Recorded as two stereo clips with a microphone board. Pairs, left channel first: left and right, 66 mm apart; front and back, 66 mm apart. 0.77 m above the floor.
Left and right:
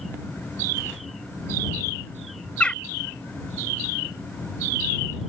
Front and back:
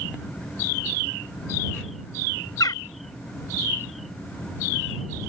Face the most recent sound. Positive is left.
turn(degrees=15)